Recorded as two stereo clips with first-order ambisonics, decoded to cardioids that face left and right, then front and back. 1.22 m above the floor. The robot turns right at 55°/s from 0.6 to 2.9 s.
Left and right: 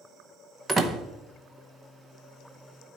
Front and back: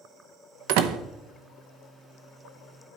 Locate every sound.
0.7 s a door slam: 165° right, 0.7 m; by 1.0 s 150° right, 0.7 m